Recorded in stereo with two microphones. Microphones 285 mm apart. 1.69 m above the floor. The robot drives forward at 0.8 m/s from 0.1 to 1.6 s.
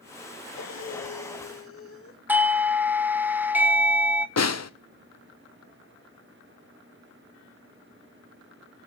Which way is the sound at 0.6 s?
65° left (ahead or behind).